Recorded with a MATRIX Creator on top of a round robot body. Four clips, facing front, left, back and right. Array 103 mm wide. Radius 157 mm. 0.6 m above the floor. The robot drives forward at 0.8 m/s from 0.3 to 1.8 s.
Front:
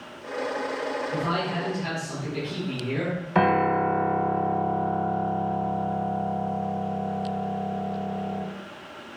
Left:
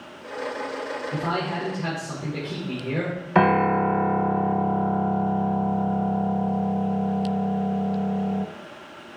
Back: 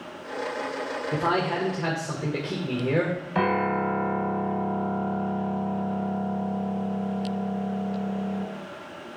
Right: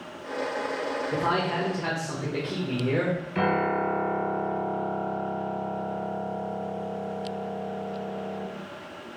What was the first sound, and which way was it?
A man speaking, 170° right.